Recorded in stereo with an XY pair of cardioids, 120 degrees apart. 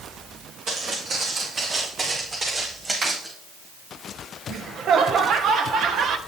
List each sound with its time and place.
0.7 s footsteps: 60° right, 5 m; by 3.3 s 20° right, 4.5 m
3.0 s a finger snap: 60° right, 5 m
4.5 s laughter: 55° right, 1.3 m